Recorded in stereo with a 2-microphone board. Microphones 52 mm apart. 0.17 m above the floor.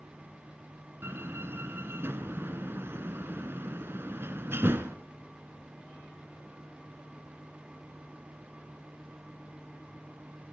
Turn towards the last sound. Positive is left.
turn(degrees=-50)  # may be behind; listen again after turning